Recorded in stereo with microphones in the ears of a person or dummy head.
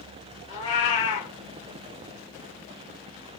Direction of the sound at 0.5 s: 25° left (ahead or behind).